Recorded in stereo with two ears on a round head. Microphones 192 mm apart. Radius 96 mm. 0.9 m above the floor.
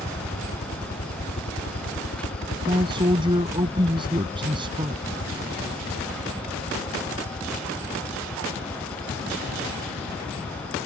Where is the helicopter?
35° left (ahead or behind); by 10.9 s 25° left (ahead or behind).